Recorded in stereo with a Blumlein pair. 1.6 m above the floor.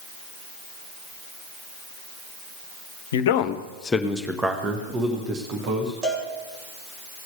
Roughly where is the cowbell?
Ahead.